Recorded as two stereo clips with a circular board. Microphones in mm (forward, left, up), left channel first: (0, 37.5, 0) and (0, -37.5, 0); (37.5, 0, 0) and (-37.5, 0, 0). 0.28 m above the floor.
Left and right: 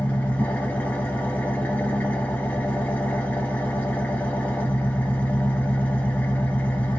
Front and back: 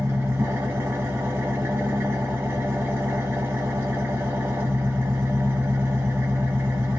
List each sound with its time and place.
0.0 s an engine running: 145° left, 0.8 m